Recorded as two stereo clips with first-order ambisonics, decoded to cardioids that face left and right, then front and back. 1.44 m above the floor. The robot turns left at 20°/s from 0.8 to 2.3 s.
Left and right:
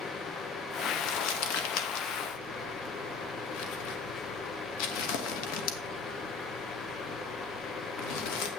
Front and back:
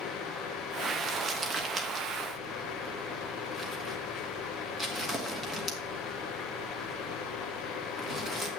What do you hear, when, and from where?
1.0 s crumpling: 110° left, 1.6 m; by 8.5 s 85° left, 1.6 m